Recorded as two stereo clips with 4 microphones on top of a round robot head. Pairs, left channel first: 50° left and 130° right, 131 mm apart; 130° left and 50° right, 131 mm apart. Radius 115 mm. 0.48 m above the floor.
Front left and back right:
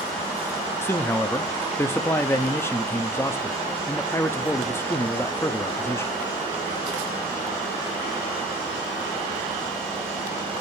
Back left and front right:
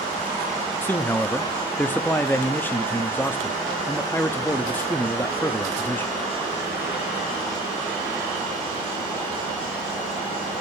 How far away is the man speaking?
About 0.8 m.